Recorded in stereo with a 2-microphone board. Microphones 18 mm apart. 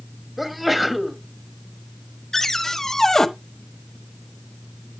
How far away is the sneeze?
About 1.7 m.